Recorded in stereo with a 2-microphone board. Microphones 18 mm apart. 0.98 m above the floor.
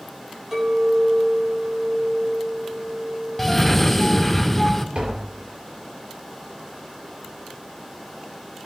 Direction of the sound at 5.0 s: 55° right (ahead or behind).